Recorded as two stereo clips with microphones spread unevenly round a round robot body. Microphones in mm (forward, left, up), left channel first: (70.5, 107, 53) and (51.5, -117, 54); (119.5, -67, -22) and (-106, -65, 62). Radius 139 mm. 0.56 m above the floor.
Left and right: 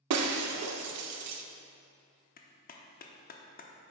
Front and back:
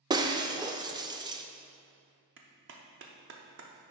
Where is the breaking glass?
100° right, 0.6 m.